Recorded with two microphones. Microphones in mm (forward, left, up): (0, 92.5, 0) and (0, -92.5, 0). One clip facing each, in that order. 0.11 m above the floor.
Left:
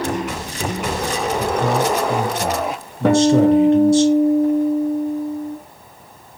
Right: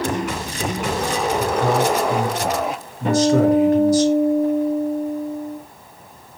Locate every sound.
1.4 s a man speaking: 25° left (ahead or behind), 1.2 m
3.0 s a guitar: 75° left (ahead or behind), 1.1 m